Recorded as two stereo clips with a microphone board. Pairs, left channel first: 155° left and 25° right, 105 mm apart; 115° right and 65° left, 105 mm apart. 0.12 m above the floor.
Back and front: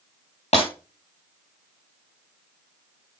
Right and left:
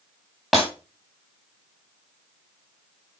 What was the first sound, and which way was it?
Breaking glass, 155° left.